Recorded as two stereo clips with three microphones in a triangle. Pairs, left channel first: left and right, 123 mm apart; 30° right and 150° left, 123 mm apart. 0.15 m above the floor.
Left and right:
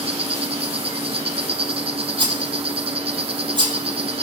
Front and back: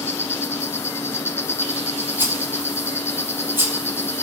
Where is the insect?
95° right, 1.6 m.